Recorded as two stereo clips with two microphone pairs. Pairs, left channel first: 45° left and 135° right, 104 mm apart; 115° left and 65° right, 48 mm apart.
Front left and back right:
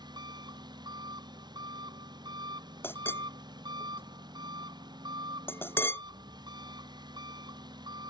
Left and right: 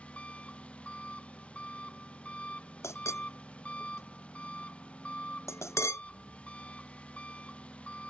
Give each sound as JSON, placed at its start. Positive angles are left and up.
{"t": 0.0, "sound": "an engine running", "azimuth_deg": 180}
{"t": 2.8, "sound": "a clink", "azimuth_deg": 115}